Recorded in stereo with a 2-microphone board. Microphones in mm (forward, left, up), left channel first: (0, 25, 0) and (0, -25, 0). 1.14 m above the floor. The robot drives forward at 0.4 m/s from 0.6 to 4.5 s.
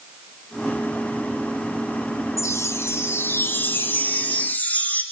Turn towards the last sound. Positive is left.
turn(degrees=35)  # may be behind; listen again after turning